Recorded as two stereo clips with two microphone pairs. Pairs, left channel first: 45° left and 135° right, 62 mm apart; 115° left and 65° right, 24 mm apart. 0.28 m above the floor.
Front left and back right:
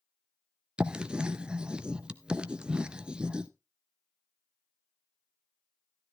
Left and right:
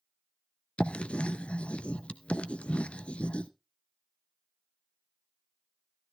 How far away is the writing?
About 0.8 m.